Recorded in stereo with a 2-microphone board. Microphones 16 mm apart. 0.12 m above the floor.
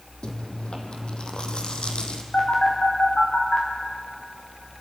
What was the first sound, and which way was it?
Chewing, 70° left (ahead or behind).